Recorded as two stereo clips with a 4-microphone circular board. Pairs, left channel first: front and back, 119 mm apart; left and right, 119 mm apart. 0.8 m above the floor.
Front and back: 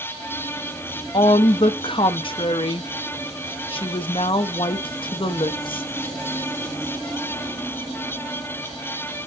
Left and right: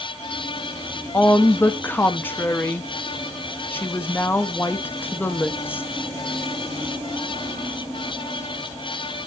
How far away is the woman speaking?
About 0.5 m.